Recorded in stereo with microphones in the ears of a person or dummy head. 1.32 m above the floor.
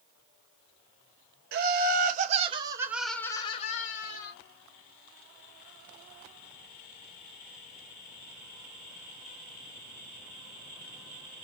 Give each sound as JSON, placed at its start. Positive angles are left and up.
{"t": 1.5, "sound": "laughter", "side_deg": -60, "distance_m": 1.0}